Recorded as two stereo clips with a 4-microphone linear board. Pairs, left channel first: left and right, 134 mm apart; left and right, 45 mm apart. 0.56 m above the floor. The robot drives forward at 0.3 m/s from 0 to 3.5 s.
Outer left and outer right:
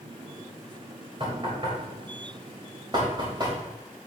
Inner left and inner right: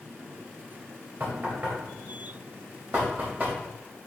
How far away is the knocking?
About 2.5 m.